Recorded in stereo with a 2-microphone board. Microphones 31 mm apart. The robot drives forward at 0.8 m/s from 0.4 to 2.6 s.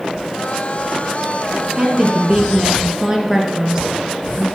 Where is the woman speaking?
25° right (ahead or behind), 1.3 m; by 4.5 s 20° right (ahead or behind), 1.7 m.